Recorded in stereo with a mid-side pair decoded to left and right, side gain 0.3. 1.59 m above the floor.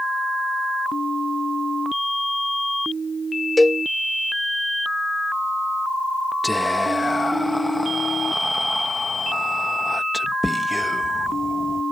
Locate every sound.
3.6 s a cowbell: 15° left
6.4 s whispering: 10° left